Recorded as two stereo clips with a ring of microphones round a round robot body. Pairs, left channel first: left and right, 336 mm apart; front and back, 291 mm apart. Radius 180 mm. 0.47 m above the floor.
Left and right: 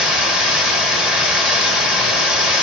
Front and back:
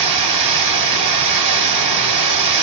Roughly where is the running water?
Behind.